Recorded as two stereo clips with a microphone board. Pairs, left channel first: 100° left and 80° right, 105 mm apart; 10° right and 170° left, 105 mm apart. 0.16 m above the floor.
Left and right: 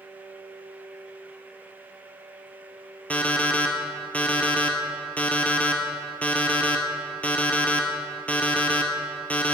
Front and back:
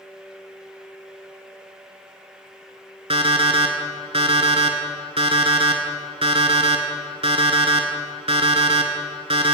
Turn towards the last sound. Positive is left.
turn(degrees=175)